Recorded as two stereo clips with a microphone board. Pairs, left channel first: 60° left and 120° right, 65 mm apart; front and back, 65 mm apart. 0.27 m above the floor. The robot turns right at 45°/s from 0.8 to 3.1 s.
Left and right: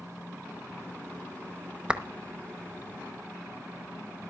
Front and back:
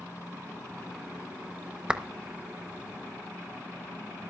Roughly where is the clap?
Behind right.